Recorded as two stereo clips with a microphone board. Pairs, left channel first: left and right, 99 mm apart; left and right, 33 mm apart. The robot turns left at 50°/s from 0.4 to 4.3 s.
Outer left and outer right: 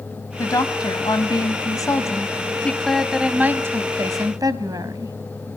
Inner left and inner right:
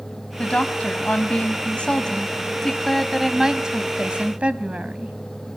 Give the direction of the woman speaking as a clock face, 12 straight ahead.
8 o'clock.